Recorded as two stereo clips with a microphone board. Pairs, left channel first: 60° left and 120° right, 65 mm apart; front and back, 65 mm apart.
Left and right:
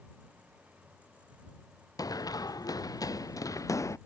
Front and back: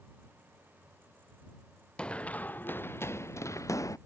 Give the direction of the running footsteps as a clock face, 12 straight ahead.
10 o'clock.